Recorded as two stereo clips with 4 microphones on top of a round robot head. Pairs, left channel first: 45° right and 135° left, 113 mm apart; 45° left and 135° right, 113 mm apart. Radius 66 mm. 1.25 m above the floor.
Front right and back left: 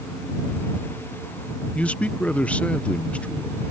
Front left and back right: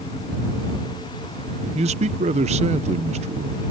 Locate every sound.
1.8 s a man speaking: 120° right